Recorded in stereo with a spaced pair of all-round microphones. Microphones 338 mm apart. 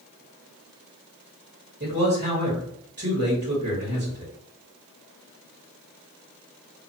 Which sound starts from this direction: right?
A man speaking, at 1.8 s.